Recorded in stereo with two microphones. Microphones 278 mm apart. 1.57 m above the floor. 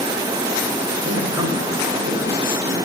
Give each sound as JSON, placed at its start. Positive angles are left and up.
{"t": 1.0, "sound": "a man speaking", "side_deg": -45, "distance_m": 4.5}